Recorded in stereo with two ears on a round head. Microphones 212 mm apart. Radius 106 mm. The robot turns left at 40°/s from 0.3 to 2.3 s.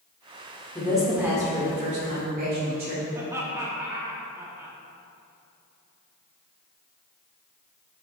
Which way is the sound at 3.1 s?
15° right (ahead or behind).